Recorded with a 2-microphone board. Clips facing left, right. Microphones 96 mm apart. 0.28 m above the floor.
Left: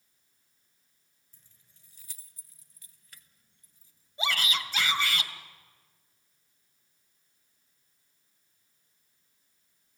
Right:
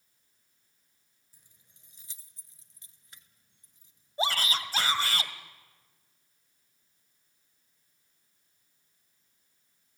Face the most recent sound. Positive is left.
turn(degrees=-35)  # may be behind; listen again after turning